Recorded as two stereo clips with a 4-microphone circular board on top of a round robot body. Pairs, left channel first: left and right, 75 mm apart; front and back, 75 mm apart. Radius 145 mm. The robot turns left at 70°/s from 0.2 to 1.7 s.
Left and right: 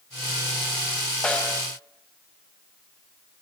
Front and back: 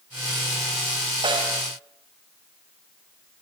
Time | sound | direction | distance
1.2 | a snare drum | 170° left | 3.5 m